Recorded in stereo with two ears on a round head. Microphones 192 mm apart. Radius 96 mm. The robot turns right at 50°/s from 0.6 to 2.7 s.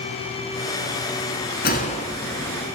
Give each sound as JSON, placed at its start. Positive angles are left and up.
{"t": 1.6, "sound": "a gunshot", "azimuth_deg": 135, "distance_m": 1.3}